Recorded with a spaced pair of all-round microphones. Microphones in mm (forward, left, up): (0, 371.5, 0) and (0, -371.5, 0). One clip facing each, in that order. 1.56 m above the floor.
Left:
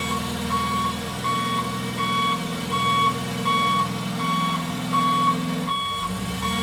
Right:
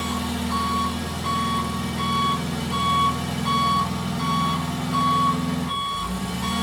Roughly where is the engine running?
Centre.